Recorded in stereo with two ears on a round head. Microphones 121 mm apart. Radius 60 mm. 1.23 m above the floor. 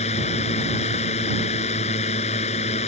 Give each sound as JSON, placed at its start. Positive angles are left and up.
{"t": 0.0, "sound": "a drone", "side_deg": 50}